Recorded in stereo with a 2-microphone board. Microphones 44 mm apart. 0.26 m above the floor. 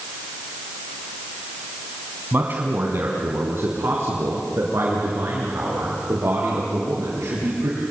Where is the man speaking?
45° right (ahead or behind), 2.5 m; by 7.8 s 80° right, 6.5 m.